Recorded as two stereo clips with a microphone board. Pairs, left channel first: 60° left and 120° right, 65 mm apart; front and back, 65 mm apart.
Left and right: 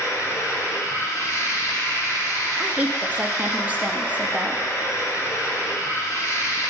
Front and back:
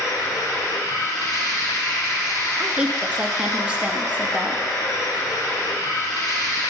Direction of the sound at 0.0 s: 20° left.